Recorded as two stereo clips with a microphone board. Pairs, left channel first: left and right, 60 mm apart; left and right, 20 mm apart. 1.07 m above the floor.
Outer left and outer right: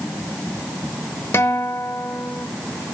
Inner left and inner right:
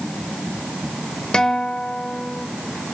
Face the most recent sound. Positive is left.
turn(degrees=45)  # may be behind; listen again after turning